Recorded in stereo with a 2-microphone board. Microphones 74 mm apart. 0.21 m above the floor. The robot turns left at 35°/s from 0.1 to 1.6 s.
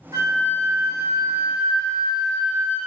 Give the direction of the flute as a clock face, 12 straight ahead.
3 o'clock.